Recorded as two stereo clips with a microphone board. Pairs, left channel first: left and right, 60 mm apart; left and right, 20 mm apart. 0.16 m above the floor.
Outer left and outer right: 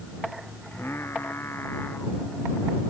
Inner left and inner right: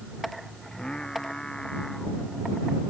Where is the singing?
40° left (ahead or behind).